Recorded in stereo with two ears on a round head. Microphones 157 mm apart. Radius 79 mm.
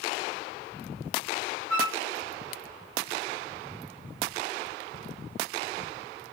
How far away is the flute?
About 4.5 m.